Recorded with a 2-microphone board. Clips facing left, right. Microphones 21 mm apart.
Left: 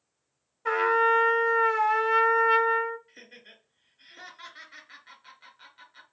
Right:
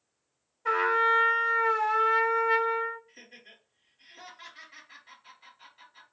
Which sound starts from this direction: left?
Laughter, at 3.1 s.